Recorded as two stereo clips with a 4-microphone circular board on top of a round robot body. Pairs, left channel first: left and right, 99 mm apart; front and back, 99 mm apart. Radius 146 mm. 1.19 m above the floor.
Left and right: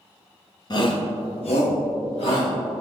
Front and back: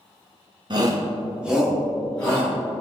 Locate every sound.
0.7 s a shout: 135° left, 1.3 m; by 2.5 s 75° left, 3 m